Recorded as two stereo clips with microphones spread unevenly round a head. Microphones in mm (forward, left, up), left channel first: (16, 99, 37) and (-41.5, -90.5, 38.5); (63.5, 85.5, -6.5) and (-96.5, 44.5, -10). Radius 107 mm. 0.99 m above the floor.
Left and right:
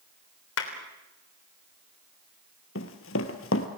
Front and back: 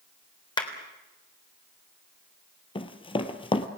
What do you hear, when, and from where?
0.6 s a clap: 75° left, 3.5 m
2.8 s running footsteps: 65° left, 1.6 m